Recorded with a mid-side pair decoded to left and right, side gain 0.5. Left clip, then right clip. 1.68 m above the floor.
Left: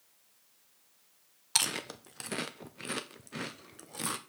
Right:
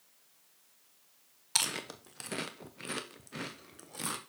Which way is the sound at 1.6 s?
15° left.